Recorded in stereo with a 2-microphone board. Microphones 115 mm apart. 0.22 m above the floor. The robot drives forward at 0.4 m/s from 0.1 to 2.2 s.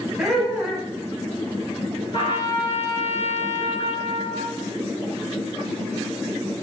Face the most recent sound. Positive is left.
turn(degrees=45)  # may be behind; listen again after turning